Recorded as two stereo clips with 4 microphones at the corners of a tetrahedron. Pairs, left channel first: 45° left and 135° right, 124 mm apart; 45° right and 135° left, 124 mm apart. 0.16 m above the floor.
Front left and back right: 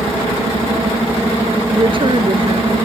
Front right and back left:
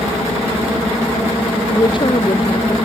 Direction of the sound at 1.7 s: 90° right.